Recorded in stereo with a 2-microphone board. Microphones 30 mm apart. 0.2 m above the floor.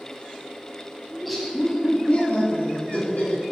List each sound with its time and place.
1.1 s laughter: 10° right (ahead or behind), 1.0 m; by 3.4 s 60° left (ahead or behind), 2.0 m